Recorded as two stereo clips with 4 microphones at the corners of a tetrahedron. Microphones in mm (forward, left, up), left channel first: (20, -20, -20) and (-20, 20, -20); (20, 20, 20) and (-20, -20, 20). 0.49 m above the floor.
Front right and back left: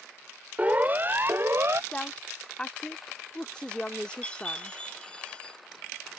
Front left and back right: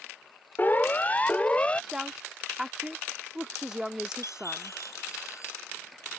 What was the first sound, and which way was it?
A siren, 80° left.